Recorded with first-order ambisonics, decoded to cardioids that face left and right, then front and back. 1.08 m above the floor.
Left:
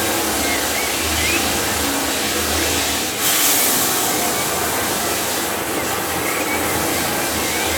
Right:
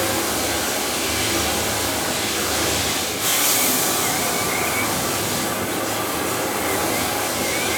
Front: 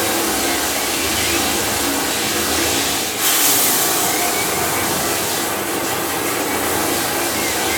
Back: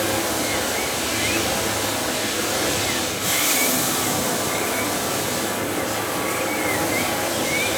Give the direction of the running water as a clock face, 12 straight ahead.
11 o'clock.